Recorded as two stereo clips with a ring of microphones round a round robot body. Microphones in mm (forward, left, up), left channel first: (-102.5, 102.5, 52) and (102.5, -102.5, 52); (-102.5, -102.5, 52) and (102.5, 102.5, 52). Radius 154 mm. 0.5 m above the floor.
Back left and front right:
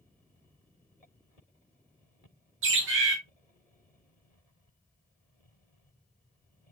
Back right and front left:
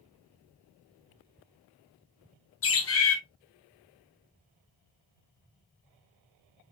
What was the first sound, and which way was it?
A bird, 90° right.